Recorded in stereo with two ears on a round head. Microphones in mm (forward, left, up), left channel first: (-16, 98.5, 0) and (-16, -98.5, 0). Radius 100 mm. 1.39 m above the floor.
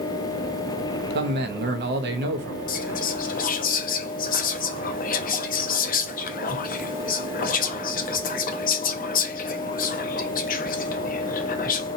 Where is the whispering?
40° left (ahead or behind), 0.6 m.